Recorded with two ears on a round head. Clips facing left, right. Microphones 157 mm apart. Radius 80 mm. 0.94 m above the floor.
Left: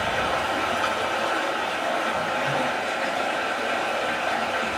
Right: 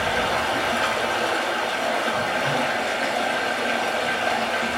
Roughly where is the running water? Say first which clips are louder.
Right 2 dB; centre.